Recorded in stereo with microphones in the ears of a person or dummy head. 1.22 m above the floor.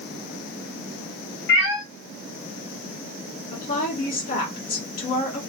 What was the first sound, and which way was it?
A cat meowing, 60° left (ahead or behind).